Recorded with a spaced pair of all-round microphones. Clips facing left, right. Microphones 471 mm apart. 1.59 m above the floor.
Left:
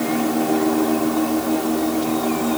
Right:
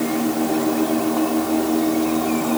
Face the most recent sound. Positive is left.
No sound to turn to.